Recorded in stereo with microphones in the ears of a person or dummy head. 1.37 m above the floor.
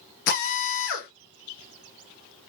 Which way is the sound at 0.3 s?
60° left (ahead or behind).